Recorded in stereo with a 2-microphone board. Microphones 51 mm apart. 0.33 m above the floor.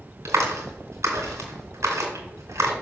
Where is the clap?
70° right (ahead or behind), 2.5 m.